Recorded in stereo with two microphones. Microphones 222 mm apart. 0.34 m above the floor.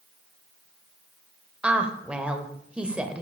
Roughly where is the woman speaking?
Centre.